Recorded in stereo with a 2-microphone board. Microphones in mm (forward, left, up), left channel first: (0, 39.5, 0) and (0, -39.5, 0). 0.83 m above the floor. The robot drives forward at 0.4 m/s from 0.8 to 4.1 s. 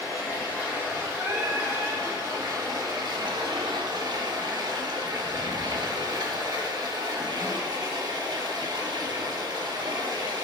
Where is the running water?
25° right (ahead or behind), 1.3 m; by 10.4 s 60° right (ahead or behind), 0.6 m.